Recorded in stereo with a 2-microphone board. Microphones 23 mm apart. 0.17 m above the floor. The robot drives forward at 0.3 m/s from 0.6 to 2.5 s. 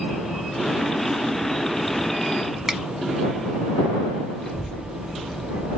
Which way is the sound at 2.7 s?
20° right (ahead or behind).